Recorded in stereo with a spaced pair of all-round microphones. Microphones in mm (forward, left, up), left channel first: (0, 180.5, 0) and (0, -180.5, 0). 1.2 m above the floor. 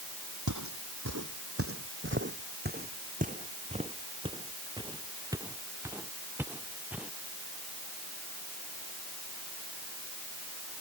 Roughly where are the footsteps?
Right.